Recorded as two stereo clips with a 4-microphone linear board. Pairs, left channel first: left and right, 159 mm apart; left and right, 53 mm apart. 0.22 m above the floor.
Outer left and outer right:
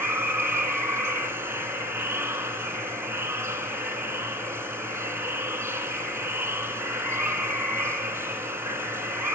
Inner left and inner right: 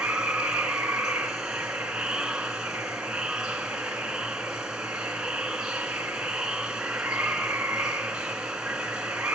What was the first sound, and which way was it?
Running water, 15° right (ahead or behind).